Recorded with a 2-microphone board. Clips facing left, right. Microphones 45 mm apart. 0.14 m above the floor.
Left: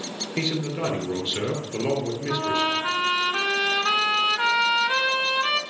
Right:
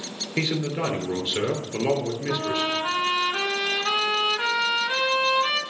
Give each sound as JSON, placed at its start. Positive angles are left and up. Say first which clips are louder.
{"t": 0.4, "sound": "a man speaking", "louder": "right 1 dB", "side_deg": -20, "distance_m": 2.5}
{"t": 2.3, "sound": "a trumpet", "louder": "left 2 dB", "side_deg": 20, "distance_m": 1.0}